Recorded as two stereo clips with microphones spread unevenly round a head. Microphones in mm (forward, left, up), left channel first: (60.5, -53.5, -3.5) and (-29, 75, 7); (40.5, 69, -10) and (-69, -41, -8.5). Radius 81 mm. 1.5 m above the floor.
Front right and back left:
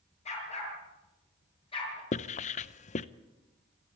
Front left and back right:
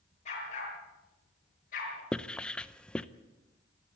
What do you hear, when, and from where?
0.2 s a dog barking: 5° right, 7 m; by 2.0 s 5° left, 7 m
2.1 s writing: 35° right, 0.6 m